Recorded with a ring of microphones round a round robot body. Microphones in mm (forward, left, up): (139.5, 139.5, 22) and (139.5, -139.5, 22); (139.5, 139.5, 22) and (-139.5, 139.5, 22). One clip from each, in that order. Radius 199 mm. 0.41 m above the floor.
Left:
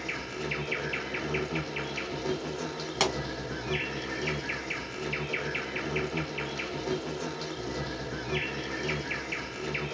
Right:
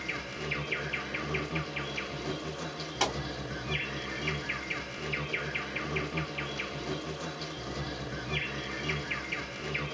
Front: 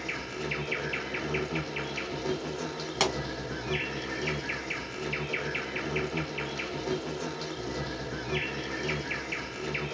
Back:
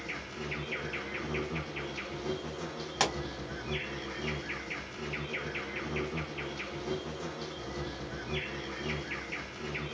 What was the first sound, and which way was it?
An insect, 20° left.